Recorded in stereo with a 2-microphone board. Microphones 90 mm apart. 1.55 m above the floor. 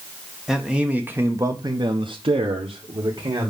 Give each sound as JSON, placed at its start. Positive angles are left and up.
{"t": 0.5, "sound": "a man speaking", "side_deg": -5, "distance_m": 1.5}